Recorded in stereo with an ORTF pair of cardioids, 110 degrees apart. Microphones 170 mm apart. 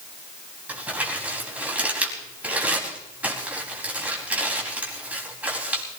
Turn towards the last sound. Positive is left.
turn(degrees=-10)